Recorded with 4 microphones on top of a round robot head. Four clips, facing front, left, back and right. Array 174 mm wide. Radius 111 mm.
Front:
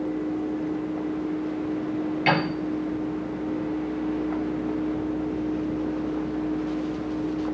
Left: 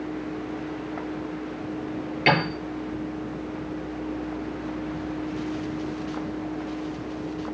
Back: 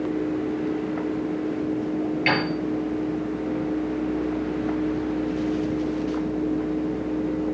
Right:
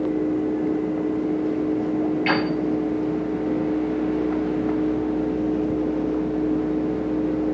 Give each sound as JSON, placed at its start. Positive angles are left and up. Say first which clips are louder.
{"t": 2.3, "sound": "a piano", "louder": "left 5 dB, front 3 dB", "azimuth_deg": 85, "distance_m": 5.5}